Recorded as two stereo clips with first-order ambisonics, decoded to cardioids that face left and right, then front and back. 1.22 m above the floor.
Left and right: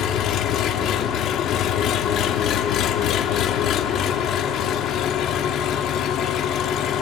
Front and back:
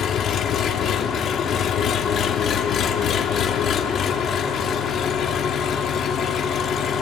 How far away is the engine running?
About 1.1 m.